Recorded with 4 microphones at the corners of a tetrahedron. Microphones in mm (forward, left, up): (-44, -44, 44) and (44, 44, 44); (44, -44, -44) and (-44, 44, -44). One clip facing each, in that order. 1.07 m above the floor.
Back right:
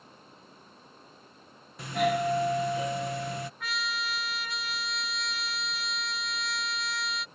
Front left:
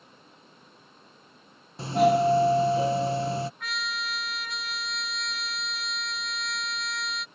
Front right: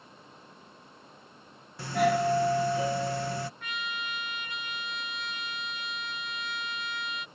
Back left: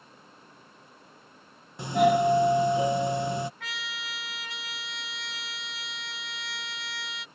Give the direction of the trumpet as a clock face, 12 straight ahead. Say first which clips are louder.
Even, front right 3 dB; 7 o'clock.